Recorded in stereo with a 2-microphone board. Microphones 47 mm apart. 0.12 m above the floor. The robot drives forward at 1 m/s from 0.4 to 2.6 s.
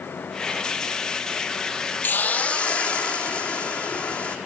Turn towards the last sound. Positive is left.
turn(degrees=25)  # may be behind; listen again after turning